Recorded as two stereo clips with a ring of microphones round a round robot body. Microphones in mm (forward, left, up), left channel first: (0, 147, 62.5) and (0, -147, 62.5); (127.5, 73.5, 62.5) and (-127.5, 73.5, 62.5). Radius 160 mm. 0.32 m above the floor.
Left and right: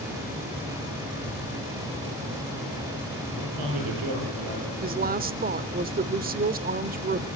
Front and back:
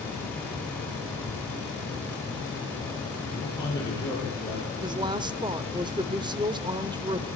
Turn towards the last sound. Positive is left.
turn(degrees=-120)